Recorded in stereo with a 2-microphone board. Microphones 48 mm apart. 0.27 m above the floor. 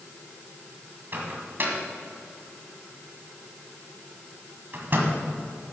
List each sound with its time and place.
1.1 s a microwave: 45° right (ahead or behind), 1.8 m